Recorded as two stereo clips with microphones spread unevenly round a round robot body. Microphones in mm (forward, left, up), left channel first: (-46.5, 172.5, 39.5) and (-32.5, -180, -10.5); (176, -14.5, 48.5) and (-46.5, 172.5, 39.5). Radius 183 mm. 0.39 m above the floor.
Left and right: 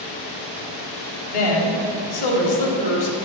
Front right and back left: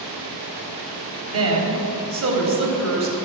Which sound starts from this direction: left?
A woman speaking, at 1.3 s.